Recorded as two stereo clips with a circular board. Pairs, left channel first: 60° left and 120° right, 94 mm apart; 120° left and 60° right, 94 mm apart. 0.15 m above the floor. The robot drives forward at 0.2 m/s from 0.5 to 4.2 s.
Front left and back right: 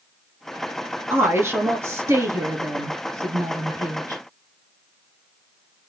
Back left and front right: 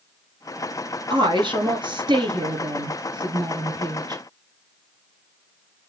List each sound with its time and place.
1.1 s a woman speaking: 60° right, 1.9 m; by 4.2 s 85° right, 1.7 m